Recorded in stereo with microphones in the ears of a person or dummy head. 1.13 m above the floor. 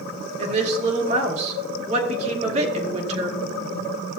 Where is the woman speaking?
35° right (ahead or behind), 2.5 m.